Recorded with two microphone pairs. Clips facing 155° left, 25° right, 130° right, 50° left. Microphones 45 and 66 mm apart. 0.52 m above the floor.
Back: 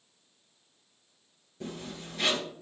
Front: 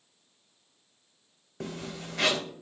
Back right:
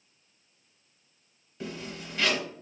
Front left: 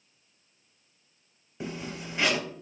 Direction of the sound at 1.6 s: 20° right.